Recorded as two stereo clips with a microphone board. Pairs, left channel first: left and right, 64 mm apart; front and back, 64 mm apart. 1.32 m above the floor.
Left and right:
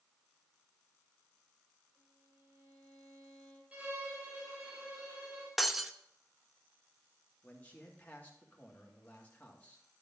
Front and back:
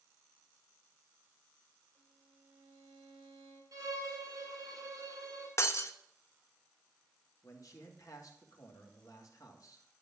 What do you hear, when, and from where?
1.9 s a violin: 140° right, 6.5 m
3.7 s a violin: 155° right, 4 m
5.6 s breaking glass: straight ahead, 0.7 m
7.4 s a man speaking: 25° left, 2.5 m